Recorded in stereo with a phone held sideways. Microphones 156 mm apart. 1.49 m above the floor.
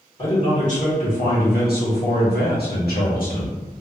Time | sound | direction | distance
0.2 | a man speaking | 45° left (ahead or behind) | 1.9 m